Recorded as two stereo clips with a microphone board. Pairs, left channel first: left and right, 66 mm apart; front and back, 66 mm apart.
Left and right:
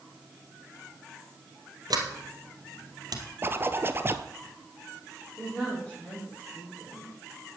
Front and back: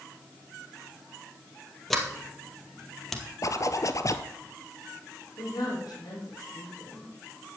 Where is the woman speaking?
15° left, 5.5 m.